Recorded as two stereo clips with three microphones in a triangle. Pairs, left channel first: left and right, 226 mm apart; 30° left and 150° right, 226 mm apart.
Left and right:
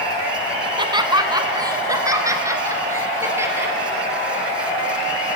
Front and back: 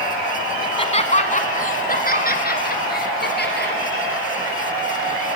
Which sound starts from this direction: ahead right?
Laughter, at 0.6 s.